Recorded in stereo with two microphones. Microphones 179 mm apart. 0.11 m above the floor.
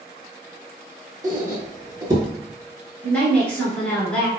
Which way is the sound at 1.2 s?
20° right (ahead or behind).